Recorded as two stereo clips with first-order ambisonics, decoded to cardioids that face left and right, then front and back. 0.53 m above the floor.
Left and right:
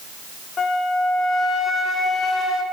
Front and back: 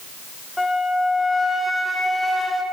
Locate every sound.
0.6 s a flute: 80° left, 1.1 m